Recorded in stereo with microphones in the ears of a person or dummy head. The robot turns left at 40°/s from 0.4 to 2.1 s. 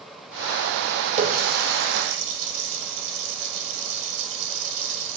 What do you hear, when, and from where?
1.2 s a running tap: 40° right (ahead or behind), 3.5 m; by 5.2 s 70° right (ahead or behind), 3.5 m